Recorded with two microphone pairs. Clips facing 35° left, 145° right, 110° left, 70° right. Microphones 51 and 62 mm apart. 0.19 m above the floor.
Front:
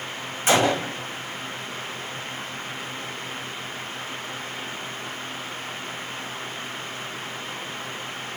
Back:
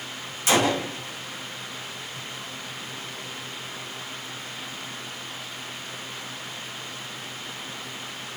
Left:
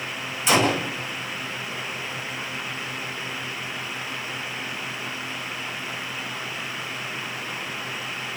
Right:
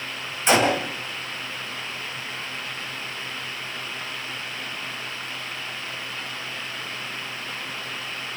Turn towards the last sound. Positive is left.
turn(degrees=-25)